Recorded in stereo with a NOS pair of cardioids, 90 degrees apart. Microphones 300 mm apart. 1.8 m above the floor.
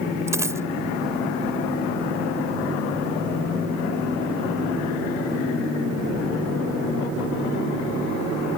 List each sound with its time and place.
0.3 s a dropped coin: 10° right